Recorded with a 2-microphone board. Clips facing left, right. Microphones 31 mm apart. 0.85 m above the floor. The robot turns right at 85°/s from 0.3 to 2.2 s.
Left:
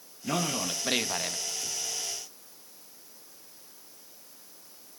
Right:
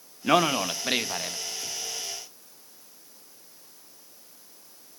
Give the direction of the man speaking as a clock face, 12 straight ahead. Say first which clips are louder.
Right 8 dB; 3 o'clock.